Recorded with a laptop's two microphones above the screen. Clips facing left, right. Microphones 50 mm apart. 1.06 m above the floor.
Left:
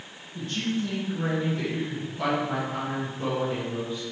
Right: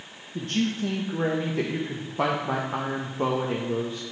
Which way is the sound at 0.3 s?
65° right (ahead or behind).